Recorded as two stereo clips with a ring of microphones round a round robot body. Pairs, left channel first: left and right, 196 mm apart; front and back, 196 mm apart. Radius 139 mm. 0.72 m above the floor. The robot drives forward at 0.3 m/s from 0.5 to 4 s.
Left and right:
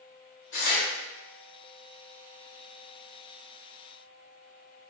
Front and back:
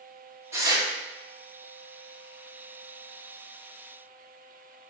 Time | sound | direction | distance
0.5 | tearing paper | 105° left | 1.0 m